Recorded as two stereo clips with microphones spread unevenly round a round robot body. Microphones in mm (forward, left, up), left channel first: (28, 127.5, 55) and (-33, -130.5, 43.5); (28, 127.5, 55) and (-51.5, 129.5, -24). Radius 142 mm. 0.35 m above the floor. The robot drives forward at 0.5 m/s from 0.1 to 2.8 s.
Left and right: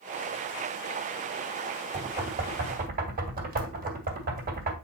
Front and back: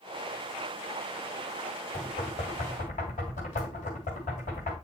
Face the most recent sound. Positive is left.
turn(degrees=-55)